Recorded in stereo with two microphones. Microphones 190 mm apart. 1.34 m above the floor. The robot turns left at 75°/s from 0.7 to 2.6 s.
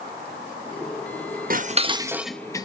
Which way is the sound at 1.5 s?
50° right (ahead or behind).